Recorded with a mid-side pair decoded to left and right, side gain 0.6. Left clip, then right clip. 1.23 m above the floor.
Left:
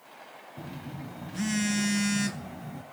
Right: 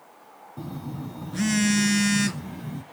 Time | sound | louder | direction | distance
0.6 | a phone buzzing | right 5 dB | 30° right | 0.6 m